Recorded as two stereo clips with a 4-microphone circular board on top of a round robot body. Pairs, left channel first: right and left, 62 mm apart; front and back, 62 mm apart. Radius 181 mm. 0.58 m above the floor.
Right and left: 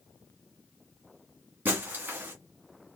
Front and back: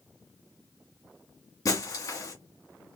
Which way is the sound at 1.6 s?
30° left.